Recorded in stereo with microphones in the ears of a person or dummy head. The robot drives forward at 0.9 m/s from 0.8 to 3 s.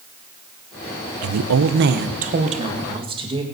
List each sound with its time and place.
1.2 s a woman speaking: 80° right, 0.8 m; by 3.4 s 25° right (ahead or behind), 1.7 m